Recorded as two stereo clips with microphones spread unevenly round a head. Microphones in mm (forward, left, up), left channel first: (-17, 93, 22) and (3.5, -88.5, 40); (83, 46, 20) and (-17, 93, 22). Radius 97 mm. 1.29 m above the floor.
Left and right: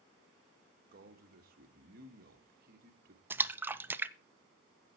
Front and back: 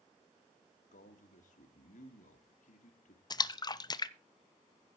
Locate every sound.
0.9 s a man speaking: 40° right, 1.4 m
3.3 s a splash: straight ahead, 0.6 m